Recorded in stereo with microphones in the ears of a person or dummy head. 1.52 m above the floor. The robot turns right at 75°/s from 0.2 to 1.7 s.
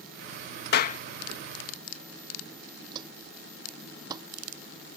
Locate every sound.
0.7 s a clap: 60° left (ahead or behind); by 1.0 s 40° left (ahead or behind)
2.9 s footsteps: 30° right (ahead or behind); by 4.3 s 25° right (ahead or behind)